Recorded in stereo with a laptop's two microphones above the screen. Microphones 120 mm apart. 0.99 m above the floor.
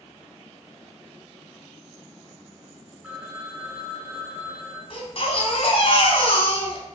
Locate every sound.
3.0 s a phone ringing: 10° right (ahead or behind), 2 m
4.9 s a baby crying: 50° left (ahead or behind), 2.5 m